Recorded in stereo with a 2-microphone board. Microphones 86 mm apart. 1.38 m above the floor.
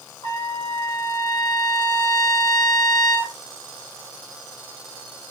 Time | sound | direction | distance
0.2 | a trumpet | 75° left (ahead or behind) | 1.7 m